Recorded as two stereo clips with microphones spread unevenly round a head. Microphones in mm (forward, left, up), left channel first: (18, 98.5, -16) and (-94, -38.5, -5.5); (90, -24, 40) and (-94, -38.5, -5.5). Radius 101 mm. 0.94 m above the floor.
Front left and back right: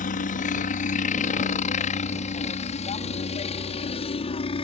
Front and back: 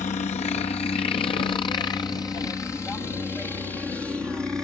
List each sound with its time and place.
0.0 s a helicopter: 60° left; by 4.6 s 100° left